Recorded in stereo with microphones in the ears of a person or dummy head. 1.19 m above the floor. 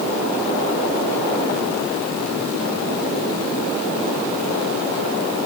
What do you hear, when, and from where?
Only background noise.